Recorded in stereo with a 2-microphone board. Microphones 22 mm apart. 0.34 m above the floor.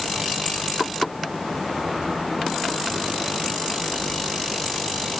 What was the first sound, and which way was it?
Only background noise.